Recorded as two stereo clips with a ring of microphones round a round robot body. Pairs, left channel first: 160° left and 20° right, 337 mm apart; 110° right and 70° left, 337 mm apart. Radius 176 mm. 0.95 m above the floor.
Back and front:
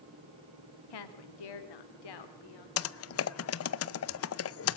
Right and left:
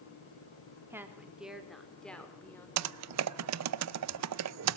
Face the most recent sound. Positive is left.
turn(degrees=110)